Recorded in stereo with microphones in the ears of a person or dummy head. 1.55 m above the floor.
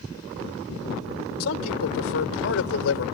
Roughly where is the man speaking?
Left.